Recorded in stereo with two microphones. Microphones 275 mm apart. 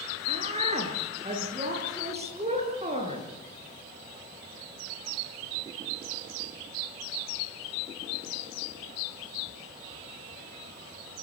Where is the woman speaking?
25° right (ahead or behind), 6 m.